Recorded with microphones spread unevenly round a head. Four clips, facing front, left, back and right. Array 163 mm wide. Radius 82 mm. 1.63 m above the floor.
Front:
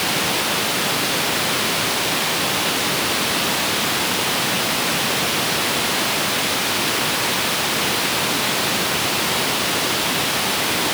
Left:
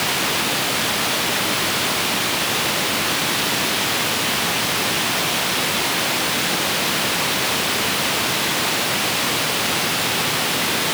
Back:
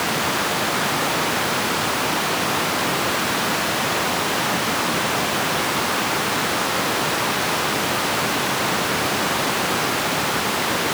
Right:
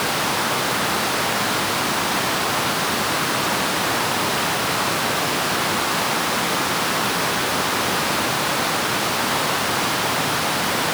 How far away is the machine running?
I don't hear a machine running.